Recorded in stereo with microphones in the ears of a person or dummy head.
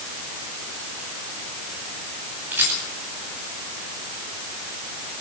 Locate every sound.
2.5 s a rattle: 5° right (ahead or behind), 9.5 m